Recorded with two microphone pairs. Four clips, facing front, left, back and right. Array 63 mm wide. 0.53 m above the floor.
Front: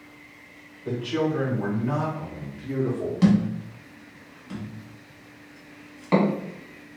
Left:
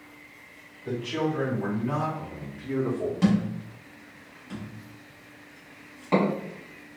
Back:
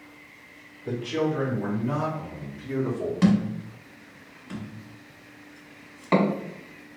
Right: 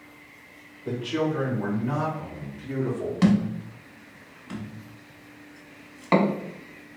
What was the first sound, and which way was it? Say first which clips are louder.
A man speaking: right 2 dB, front 1 dB; 20° right.